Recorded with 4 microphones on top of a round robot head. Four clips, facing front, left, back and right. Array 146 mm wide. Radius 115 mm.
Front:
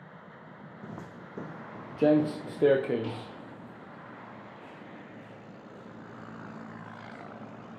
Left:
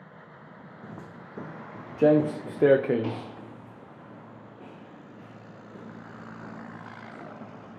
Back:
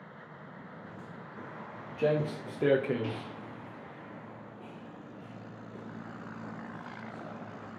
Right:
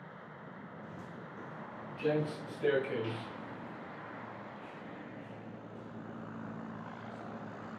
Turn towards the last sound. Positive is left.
turn(degrees=110)